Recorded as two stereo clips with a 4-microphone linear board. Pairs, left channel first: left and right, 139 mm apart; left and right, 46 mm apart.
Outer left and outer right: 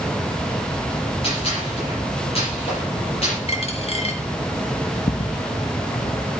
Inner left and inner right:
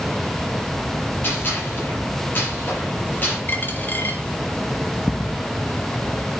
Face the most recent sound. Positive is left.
turn(degrees=75)  # may be behind; listen again after turning